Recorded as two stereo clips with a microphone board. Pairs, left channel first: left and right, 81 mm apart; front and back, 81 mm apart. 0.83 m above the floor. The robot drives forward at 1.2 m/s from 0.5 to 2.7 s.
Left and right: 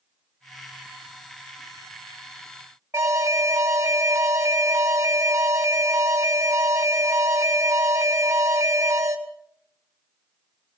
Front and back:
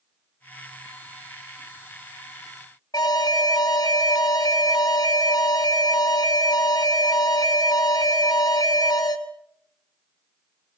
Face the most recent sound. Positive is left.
turn(degrees=-30)